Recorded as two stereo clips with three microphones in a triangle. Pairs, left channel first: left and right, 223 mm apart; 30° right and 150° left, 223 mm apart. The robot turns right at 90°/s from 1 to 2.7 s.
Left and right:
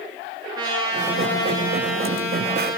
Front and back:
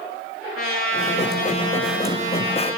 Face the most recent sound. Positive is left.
turn(degrees=135)